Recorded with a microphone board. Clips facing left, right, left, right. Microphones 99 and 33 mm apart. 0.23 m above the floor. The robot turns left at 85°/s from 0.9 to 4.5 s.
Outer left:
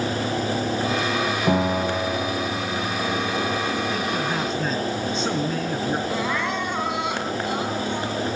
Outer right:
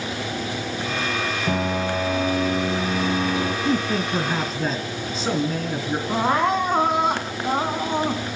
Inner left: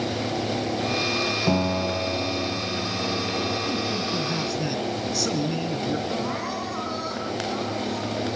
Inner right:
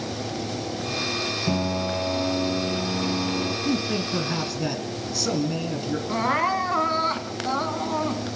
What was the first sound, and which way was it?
A piano, 25° left.